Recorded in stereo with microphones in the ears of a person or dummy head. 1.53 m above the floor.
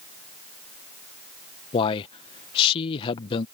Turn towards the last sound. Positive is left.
turn(degrees=35)  # may be behind; listen again after turning